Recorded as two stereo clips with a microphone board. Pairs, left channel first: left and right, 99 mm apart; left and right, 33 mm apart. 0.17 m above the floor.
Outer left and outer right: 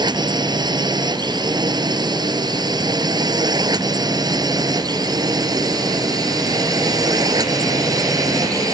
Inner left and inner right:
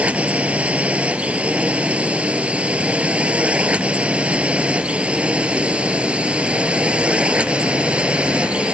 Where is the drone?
45° right (ahead or behind); by 8.7 s 35° right (ahead or behind).